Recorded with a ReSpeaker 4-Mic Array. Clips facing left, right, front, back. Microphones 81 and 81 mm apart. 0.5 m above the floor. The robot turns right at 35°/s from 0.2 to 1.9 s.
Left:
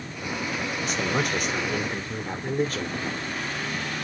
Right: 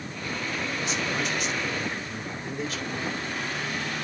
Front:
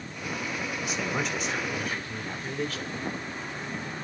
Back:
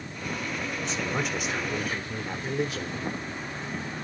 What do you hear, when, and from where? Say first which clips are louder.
0.8 s a man speaking: left 4 dB, even; 80° left, 1.5 m; by 3.0 s 115° left, 1.5 m